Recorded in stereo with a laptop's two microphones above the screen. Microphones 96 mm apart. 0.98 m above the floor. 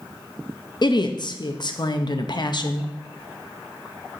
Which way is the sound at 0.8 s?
50° left (ahead or behind).